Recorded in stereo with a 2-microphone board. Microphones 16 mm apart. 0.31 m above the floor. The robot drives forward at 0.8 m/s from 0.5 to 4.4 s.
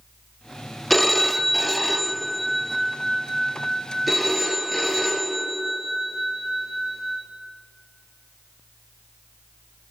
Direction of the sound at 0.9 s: 15° left (ahead or behind).